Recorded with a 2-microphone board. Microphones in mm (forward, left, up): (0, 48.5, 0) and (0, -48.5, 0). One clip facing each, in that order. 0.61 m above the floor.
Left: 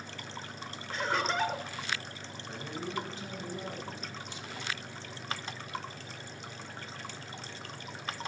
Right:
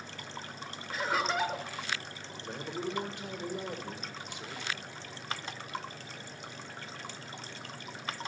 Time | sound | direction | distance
0.9 | laughter | 5° right (ahead or behind) | 0.9 m
2.4 | a man speaking | 65° right (ahead or behind) | 2 m